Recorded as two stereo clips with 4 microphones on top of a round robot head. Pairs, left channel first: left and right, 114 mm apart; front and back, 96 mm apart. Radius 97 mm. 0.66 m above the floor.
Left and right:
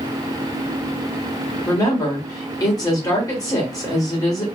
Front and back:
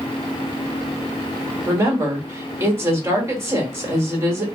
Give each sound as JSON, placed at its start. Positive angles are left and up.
{"t": 1.7, "sound": "a woman speaking", "azimuth_deg": 130, "distance_m": 1.5}